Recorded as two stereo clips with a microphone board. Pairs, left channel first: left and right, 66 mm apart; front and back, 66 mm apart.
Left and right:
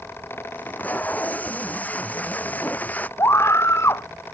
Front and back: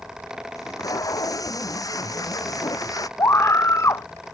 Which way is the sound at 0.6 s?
25° left.